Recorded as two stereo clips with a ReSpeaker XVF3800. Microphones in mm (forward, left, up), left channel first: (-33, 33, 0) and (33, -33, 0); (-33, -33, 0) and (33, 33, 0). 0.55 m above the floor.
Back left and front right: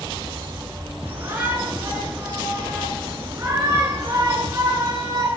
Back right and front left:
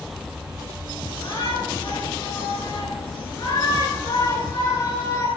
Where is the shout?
110° right, 9.5 m; by 5.3 s 95° right, 9 m.